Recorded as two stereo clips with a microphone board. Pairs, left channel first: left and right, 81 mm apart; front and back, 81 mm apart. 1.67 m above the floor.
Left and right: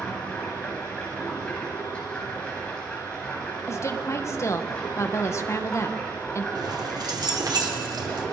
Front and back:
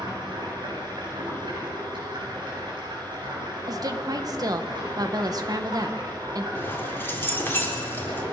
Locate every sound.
0.0 s running water: 165° left, 9 m
3.7 s a woman speaking: 140° left, 1.9 m
6.5 s keys jangling: 60° right, 3.5 m